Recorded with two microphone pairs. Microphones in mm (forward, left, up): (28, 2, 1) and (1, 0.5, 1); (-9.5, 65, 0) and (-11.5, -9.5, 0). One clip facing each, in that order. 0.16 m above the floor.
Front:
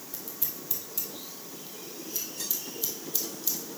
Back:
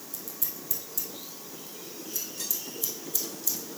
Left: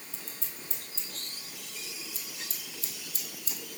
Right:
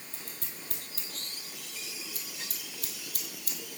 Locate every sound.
0.1 s scissors: 60° right, 1.4 m